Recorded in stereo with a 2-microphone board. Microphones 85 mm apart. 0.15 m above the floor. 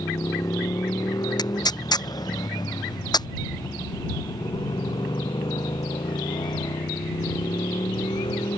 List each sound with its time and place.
0.0 s a motorcycle: 45° left (ahead or behind); by 8.6 s 70° left (ahead or behind)
1.4 s tearing paper: 55° left (ahead or behind)